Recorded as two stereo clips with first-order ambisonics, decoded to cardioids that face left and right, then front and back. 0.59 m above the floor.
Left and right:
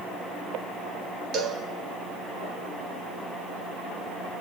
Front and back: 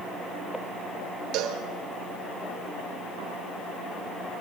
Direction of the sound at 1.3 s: 140° right.